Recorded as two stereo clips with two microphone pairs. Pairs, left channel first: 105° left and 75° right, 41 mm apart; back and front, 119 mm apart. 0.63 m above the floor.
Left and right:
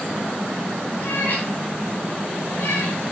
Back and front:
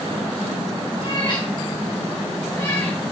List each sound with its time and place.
1.0 s a cat meowing: 135° left, 3.5 m; by 3.1 s 105° left, 3.5 m